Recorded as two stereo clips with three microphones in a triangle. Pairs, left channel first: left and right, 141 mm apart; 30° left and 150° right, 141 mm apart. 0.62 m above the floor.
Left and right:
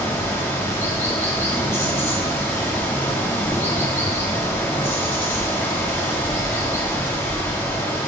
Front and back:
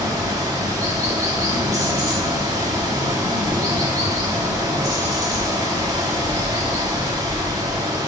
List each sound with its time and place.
0.0 s running water: 155° left, 1.2 m